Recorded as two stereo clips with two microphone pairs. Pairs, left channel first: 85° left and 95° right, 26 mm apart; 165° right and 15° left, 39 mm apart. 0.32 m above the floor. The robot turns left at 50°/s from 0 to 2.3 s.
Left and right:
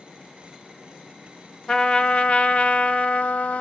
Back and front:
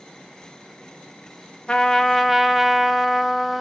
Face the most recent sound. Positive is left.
turn(degrees=105)